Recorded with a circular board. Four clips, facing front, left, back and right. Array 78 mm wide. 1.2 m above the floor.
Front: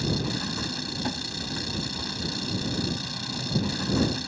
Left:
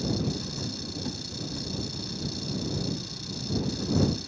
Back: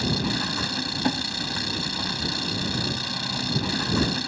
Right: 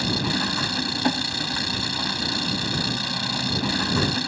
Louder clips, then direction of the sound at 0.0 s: Right 5 dB, back 2 dB; 110° right.